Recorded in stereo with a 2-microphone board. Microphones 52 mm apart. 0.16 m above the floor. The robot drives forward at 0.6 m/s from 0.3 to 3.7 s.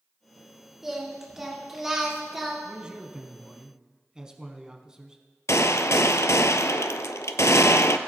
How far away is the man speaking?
About 1.0 m.